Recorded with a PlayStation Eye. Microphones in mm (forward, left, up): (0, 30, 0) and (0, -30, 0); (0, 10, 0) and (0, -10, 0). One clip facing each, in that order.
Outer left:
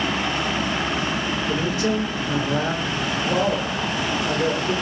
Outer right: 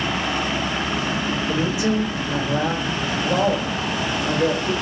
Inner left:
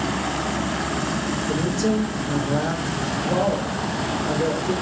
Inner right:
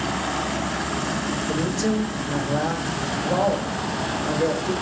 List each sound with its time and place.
1.5 s a man speaking: 5° right (ahead or behind), 0.9 m